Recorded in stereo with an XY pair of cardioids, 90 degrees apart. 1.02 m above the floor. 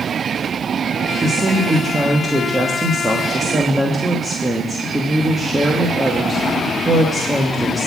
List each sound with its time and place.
1.2 s a woman speaking: 15° right, 1.4 m